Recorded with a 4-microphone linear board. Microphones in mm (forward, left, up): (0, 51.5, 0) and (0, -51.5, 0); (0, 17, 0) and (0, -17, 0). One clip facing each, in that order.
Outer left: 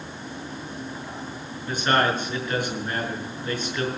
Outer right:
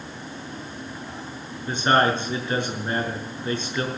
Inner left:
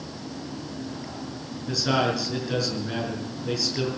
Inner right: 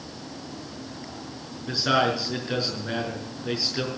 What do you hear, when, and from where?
1.6 s a man speaking: 25° right (ahead or behind), 5.5 m